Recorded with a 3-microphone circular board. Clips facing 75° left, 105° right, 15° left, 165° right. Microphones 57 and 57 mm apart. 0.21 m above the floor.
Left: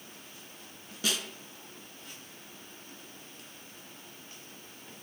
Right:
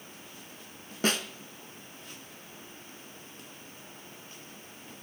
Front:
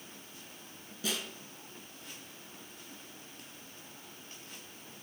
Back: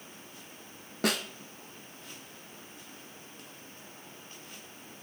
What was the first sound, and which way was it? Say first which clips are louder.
A snare drum: right 5 dB, back 7 dB; 150° right.